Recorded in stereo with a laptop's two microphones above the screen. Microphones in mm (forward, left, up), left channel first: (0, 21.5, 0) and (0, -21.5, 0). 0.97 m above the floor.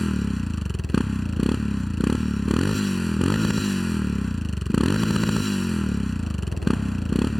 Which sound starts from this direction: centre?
A motorcycle, at 0.0 s.